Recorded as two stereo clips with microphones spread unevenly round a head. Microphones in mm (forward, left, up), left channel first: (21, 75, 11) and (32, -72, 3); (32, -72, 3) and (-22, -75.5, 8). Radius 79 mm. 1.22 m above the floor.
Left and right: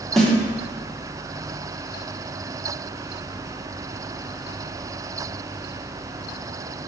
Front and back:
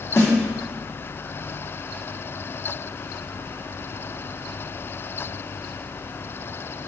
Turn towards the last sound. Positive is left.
turn(degrees=10)